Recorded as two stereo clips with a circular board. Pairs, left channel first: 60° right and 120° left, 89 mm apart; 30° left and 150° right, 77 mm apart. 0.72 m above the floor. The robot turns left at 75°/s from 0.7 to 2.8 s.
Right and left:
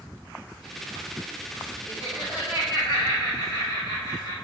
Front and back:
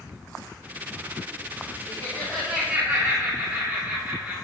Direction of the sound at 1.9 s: 15° right.